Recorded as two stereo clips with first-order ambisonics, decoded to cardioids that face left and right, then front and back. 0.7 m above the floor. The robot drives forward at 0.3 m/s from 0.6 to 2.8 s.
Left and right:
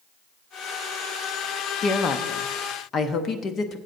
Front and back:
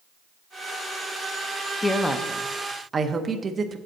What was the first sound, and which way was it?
A woman speaking, 70° left.